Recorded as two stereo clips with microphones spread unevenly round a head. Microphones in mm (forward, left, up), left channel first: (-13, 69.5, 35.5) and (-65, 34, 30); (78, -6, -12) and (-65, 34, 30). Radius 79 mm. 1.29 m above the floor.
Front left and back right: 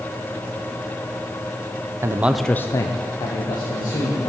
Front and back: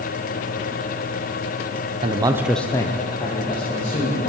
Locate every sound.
2.0 s a man speaking: 135° right, 0.7 m; by 4.3 s 35° left, 2 m